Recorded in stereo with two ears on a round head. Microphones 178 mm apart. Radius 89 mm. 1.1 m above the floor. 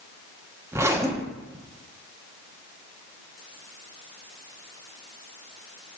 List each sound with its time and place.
0.7 s a zipper: 15° right (ahead or behind), 0.7 m